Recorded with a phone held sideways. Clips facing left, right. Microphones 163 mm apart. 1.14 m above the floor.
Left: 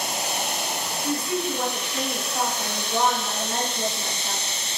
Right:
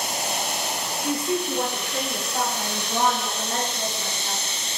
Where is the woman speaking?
15° right (ahead or behind), 0.6 m; by 4.4 s 70° right (ahead or behind), 3 m.